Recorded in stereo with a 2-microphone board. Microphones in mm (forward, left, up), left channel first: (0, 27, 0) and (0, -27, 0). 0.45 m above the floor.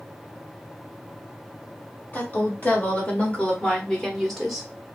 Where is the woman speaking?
35° left (ahead or behind), 1.9 m; by 4.7 s 5° right (ahead or behind), 1.1 m.